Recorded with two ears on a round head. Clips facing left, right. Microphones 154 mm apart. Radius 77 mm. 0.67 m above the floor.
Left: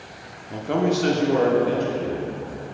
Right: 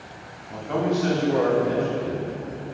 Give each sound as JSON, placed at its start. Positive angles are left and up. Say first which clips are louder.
{"t": 0.5, "sound": "a man speaking", "louder": "left 2 dB", "side_deg": 30, "distance_m": 1.0}